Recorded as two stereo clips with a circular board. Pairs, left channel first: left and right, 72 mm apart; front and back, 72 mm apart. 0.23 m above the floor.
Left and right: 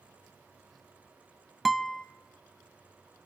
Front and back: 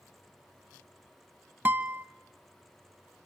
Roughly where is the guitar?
Behind.